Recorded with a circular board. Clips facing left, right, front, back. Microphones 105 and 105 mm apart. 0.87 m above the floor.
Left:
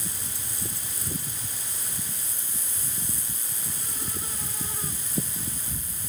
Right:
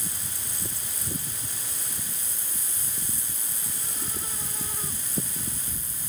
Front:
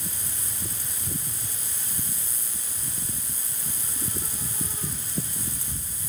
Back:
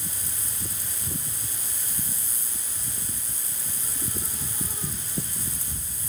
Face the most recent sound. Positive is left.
No sound to turn to.